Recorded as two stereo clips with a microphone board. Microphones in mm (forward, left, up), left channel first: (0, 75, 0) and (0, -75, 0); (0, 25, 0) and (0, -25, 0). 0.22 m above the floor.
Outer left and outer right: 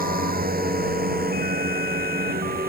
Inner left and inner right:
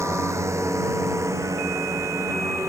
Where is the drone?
75° right (ahead or behind); by 2.7 s 80° right.